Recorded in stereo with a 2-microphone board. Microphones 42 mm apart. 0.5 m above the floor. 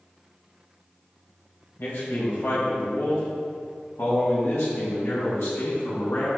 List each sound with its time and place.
1.8 s a man speaking: 60° left (ahead or behind), 2.5 m; by 6.3 s 80° left, 4.5 m